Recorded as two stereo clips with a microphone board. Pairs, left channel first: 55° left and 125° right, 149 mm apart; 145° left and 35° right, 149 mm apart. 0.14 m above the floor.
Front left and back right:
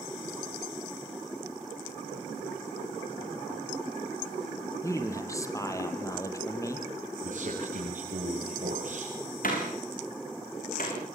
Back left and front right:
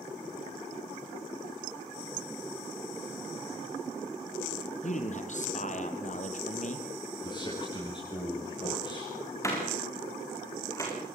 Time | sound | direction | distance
4.8 | a man speaking | 120° left | 2.5 m
7.2 | a man speaking | 155° right | 7.5 m
9.4 | a door slam | 75° left | 6.5 m